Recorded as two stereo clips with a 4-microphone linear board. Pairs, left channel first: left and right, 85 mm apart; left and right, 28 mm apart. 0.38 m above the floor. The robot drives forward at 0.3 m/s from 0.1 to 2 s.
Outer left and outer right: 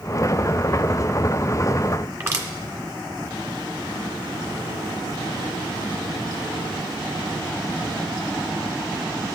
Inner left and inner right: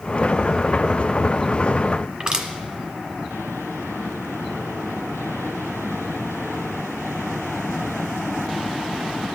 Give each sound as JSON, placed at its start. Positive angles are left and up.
{"t": 2.2, "sound": "crushing", "side_deg": -35, "distance_m": 1.2}